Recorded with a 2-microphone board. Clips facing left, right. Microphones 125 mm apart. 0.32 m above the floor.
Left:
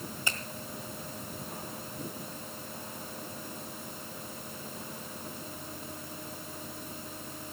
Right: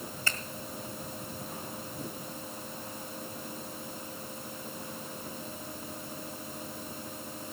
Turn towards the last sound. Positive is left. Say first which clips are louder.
# even
turn(degrees=20)  # may be behind; listen again after turning